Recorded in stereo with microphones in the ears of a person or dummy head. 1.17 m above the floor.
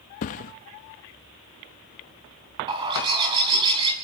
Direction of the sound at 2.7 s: 25° right (ahead or behind).